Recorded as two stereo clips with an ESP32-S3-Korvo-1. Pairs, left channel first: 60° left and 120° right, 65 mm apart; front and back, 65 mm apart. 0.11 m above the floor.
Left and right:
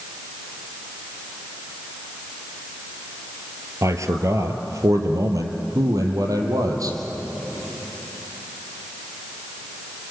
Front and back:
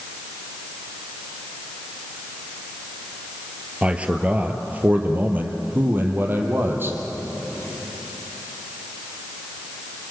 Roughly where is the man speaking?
Right.